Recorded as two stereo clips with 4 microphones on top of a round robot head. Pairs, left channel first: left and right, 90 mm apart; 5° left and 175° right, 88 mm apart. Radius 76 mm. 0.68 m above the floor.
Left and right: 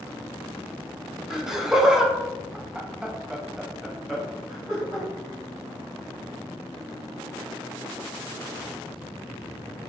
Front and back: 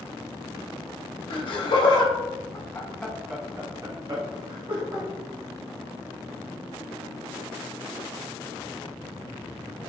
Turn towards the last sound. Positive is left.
turn(degrees=-175)